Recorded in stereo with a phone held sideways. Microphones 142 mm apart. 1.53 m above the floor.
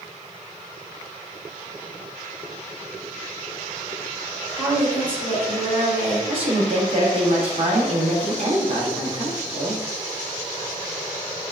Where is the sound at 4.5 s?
10° left (ahead or behind), 1.6 m.